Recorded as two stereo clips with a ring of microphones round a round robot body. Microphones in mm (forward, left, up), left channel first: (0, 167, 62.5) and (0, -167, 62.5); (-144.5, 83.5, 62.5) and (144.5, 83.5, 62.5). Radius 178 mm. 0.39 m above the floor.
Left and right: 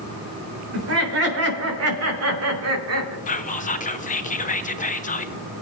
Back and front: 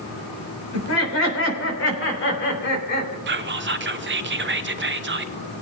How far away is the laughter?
About 3.5 m.